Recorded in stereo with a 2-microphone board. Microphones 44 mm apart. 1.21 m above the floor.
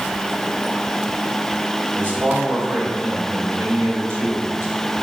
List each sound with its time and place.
1.9 s a man speaking: 40° right (ahead or behind), 5 m; by 4.9 s 60° right (ahead or behind), 3.5 m